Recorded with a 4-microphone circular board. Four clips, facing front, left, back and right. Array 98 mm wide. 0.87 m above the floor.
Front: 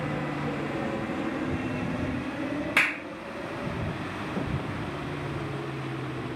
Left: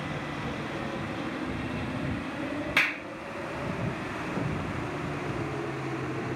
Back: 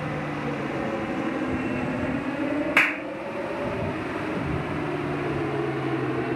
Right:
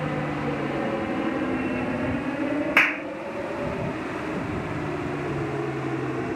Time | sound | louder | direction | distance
0.0 | an aircraft | right 7 dB, back 2 dB | 105° right | ?
2.8 | a clap | right 5 dB, back 2 dB | 125° right | ?